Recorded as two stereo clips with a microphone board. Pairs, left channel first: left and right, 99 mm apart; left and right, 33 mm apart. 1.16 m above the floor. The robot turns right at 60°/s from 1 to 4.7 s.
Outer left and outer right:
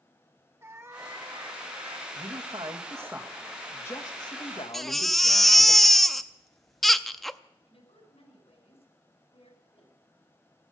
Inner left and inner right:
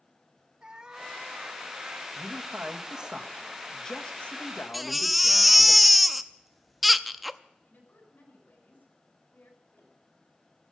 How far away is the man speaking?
About 1.7 m.